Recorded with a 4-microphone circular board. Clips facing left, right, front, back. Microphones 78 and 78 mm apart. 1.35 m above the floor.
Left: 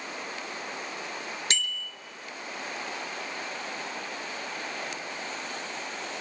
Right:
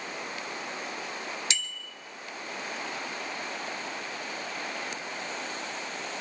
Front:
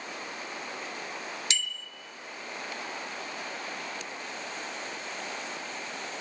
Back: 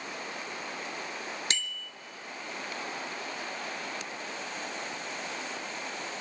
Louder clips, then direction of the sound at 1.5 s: Left 3 dB, even; 135° left.